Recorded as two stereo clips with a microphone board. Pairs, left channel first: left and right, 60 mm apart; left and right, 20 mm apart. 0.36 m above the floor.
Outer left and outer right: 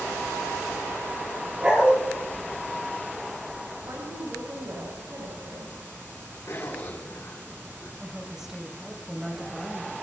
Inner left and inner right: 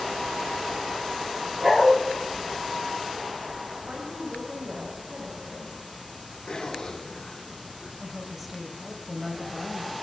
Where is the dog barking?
20° right (ahead or behind), 2.5 m.